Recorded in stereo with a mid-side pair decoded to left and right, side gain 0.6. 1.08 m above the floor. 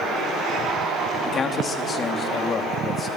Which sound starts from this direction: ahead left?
A man speaking, at 1.2 s.